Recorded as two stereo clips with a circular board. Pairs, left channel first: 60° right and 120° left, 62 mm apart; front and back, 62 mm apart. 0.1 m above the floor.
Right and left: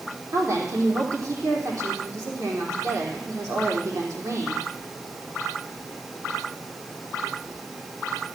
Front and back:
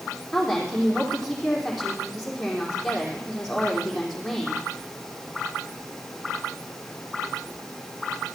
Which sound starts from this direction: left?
A woman speaking, at 0.3 s.